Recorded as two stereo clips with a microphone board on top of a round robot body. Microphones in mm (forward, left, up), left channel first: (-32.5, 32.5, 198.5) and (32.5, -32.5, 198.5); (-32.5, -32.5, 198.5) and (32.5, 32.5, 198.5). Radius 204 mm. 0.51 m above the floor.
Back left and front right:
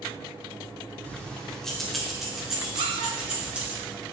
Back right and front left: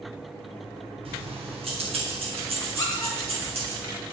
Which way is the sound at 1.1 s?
65° left.